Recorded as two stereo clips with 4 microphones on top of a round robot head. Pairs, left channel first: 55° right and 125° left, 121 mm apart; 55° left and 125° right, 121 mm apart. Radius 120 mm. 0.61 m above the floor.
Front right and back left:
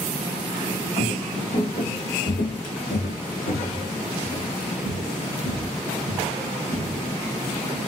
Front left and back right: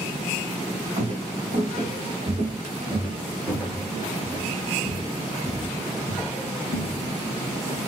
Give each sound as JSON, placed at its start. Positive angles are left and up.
{"t": 1.0, "sound": "footsteps", "azimuth_deg": -85, "distance_m": 1.8}